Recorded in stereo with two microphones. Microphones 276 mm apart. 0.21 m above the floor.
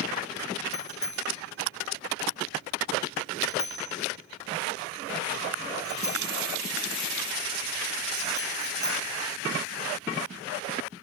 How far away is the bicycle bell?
About 6.5 m.